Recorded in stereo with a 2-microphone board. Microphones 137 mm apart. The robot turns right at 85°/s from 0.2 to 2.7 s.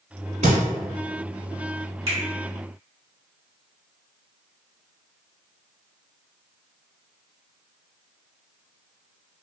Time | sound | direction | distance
0.4 | a thud | 65° right (ahead or behind) | 0.9 m
2.1 | a finger snap | 45° right (ahead or behind) | 1.7 m